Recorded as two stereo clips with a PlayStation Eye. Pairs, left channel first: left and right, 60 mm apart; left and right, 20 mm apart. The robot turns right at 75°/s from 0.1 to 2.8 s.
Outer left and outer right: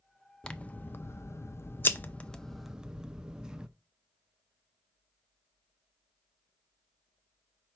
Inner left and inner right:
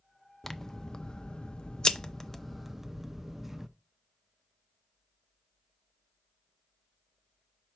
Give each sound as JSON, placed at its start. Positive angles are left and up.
{"t": 0.4, "sound": "scissors", "azimuth_deg": 20, "distance_m": 0.5}